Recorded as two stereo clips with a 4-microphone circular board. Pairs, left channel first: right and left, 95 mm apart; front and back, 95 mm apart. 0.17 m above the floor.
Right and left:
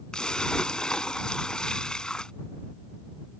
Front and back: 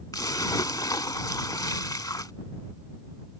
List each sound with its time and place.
0.1 s a splash: 15° right